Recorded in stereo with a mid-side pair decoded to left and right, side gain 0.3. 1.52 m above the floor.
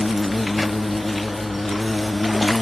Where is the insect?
30° left.